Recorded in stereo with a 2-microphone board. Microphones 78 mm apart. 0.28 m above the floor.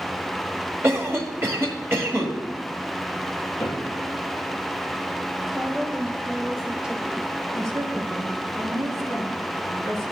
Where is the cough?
30° right (ahead or behind), 1.5 m.